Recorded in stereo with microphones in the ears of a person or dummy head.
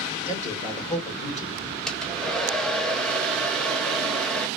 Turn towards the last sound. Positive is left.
turn(degrees=0)  # may be behind; listen again after turning